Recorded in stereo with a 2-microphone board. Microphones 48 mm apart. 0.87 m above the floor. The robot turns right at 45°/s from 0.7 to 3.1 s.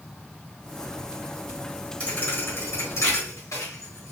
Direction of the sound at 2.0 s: 25° left (ahead or behind).